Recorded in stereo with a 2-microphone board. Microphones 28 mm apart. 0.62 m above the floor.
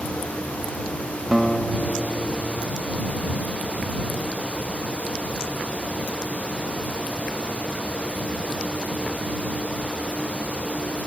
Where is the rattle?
No rattle in this recording.